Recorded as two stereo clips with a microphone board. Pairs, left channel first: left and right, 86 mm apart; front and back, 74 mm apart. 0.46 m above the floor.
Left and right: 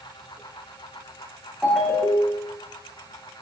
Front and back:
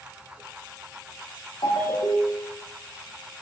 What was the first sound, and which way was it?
A ringtone, straight ahead.